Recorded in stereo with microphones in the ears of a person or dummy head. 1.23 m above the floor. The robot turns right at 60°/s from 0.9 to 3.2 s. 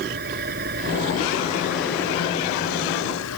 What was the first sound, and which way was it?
An engine running, 50° right.